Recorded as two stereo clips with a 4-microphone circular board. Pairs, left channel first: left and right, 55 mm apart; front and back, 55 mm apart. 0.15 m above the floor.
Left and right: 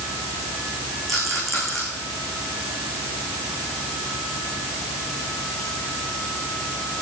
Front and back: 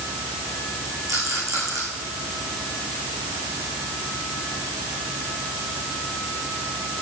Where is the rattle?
Straight behind, 8.5 m.